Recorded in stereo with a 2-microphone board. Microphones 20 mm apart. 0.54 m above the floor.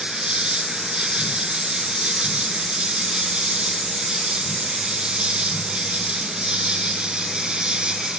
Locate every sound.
0.0 s an insect: 55° right (ahead or behind)